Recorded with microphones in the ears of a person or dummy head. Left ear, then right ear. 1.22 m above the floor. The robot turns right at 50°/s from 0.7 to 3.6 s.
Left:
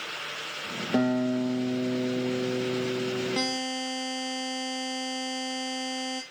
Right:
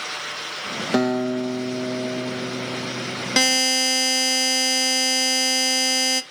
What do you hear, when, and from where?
0.9 s a guitar: 45° right, 1.6 m; by 3.6 s 90° left, 1.6 m
3.4 s a buzzer: 65° right (ahead or behind), 0.9 m; by 6.2 s 70° right (ahead or behind), 0.9 m